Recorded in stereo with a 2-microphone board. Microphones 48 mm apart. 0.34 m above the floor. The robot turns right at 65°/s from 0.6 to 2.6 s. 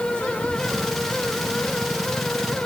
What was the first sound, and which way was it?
Only background noise.